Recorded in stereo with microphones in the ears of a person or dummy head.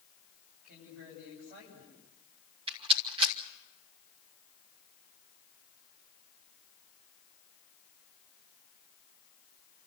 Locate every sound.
0.6 s a woman speaking: 55° right (ahead or behind), 10 m
2.7 s a rattle: 30° right (ahead or behind), 3.5 m